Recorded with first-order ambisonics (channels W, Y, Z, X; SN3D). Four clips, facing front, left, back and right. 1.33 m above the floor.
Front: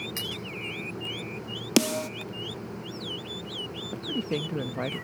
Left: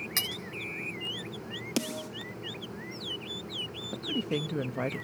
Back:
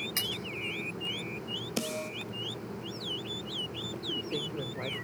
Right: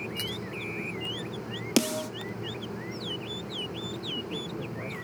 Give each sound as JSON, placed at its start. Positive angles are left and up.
{"t": 0.2, "sound": "cutlery clinking", "azimuth_deg": 90, "distance_m": 7.0}
{"t": 1.8, "sound": "a snare drum", "azimuth_deg": -25, "distance_m": 1.7}
{"t": 3.9, "sound": "a woman speaking", "azimuth_deg": 40, "distance_m": 1.5}